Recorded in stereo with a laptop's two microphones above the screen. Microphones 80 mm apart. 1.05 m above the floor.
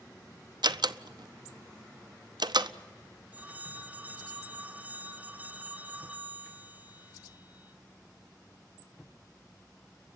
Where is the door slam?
70° right (ahead or behind), 0.7 m.